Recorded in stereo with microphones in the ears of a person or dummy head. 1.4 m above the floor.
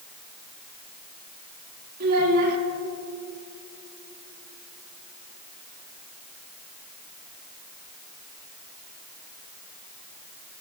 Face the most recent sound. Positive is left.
turn(degrees=-55)  # may be behind; listen again after turning